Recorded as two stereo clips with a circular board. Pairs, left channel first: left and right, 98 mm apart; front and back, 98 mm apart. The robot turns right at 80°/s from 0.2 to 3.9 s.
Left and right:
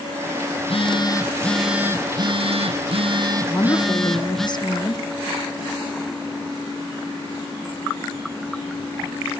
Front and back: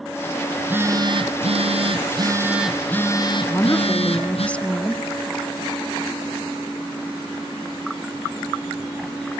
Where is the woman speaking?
40° left, 1.6 m; by 5.0 s 75° left, 1.6 m.